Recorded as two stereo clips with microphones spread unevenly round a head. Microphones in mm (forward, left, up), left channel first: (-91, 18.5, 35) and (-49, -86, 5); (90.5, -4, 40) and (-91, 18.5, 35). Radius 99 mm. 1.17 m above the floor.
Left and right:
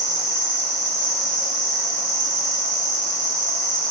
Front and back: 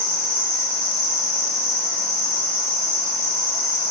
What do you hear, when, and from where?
0.0 s an insect: 95° right, 1.9 m